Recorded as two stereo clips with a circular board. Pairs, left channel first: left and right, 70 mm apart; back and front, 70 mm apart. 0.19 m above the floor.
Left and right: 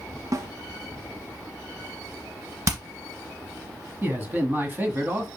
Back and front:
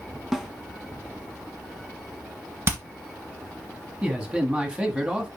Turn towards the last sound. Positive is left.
turn(degrees=-60)